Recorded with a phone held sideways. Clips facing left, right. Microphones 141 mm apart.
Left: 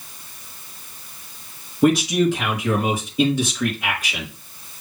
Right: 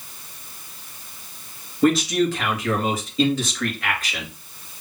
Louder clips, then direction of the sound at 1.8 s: Left 2 dB; 15° left (ahead or behind).